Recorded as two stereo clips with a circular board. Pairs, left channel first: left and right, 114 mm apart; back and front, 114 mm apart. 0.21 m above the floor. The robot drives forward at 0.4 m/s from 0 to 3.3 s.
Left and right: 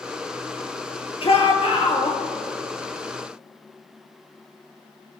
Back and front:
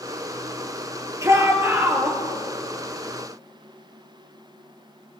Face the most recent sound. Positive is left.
turn(degrees=75)